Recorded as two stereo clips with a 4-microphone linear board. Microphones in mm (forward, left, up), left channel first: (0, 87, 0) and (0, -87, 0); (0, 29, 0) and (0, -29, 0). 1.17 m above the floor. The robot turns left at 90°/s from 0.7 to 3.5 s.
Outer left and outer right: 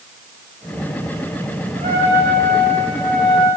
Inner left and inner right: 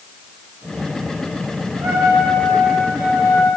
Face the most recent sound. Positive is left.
turn(degrees=155)